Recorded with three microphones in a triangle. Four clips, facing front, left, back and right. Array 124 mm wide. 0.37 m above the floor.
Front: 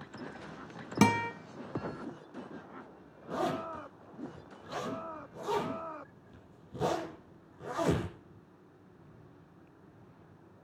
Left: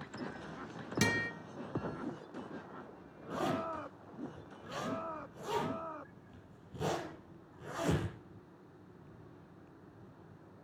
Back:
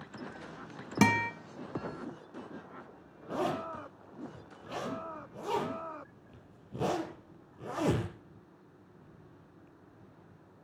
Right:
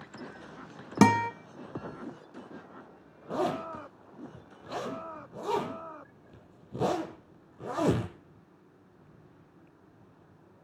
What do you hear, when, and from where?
1.0 s a guitar: 90° right, 1.1 m
3.3 s a zipper: 110° right, 8 m